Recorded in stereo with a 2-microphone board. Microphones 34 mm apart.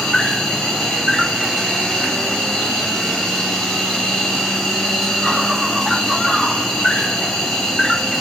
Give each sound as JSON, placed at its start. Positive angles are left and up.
{"t": 0.0, "sound": "an insect", "side_deg": 15, "distance_m": 1.2}